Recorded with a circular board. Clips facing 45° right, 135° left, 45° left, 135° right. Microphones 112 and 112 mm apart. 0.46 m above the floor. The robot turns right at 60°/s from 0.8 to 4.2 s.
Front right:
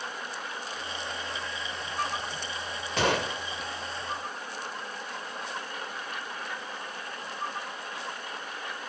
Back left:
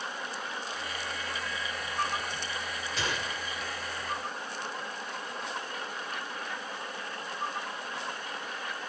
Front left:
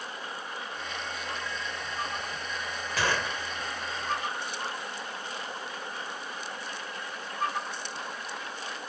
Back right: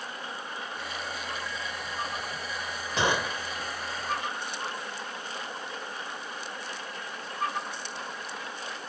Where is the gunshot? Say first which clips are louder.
Front right 9 dB, back right 3 dB; 70° right; by 3.4 s 40° right.